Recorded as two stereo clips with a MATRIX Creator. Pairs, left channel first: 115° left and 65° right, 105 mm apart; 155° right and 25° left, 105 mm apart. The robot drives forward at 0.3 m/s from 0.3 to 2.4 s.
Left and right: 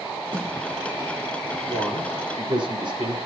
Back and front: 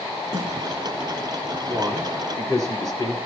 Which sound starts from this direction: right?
A man speaking, at 1.7 s.